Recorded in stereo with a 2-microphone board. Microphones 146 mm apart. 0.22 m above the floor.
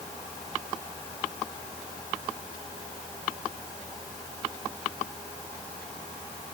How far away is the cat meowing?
I don't hear a cat meowing.